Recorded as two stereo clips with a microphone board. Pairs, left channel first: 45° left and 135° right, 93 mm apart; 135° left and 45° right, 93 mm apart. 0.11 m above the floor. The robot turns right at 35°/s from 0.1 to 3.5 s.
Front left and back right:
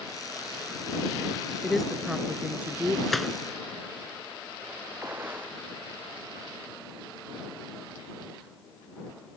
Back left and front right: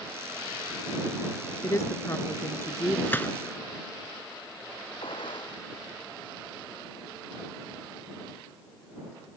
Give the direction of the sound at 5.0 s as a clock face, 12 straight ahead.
7 o'clock.